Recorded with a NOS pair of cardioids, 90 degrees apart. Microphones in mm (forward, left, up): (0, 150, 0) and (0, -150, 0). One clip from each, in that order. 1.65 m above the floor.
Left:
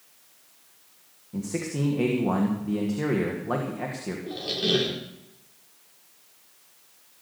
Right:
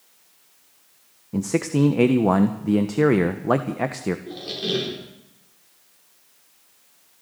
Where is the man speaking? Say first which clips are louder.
Right 8 dB; 55° right, 1.4 m.